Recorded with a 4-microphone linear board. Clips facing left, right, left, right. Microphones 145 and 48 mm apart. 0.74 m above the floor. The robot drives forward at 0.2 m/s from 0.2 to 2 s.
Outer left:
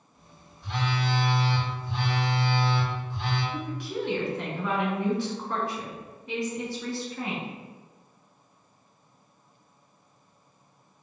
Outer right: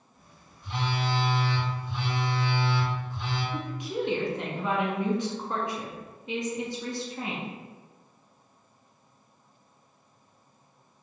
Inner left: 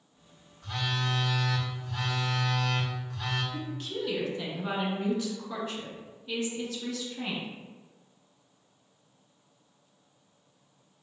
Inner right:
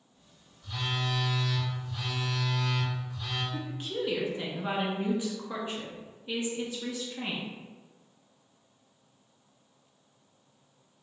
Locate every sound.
0.6 s a phone buzzing: 85° left, 1.1 m; by 3.4 s 75° left (ahead or behind), 1.2 m
3.5 s a woman speaking: 20° right (ahead or behind), 1.2 m